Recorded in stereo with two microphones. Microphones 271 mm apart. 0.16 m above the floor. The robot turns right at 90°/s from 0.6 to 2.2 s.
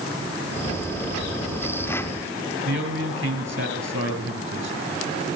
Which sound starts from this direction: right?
A man speaking, at 2.6 s.